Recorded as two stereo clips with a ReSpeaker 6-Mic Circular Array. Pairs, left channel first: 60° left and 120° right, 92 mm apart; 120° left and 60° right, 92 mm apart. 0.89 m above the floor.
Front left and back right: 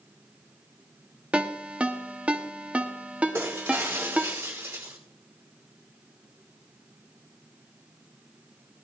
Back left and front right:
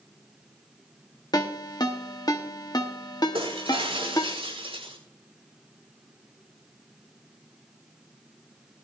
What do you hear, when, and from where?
1.3 s a ringtone: 165° left, 1.1 m
3.3 s breaking glass: 55° right, 6.5 m